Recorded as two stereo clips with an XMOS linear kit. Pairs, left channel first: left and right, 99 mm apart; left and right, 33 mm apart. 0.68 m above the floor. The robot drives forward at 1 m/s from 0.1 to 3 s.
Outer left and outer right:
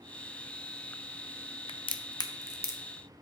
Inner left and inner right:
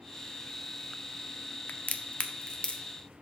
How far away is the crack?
About 0.6 m.